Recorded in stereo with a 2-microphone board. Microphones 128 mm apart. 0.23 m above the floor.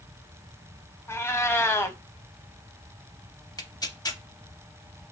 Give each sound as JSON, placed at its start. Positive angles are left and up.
{"t": 1.1, "sound": "a cat meowing", "side_deg": 20, "distance_m": 0.5}
{"t": 3.6, "sound": "tearing paper", "side_deg": 30, "distance_m": 0.6}